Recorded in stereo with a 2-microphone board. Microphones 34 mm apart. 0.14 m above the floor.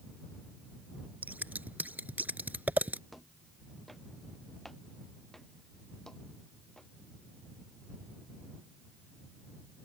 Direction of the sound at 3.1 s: Centre (ahead or behind).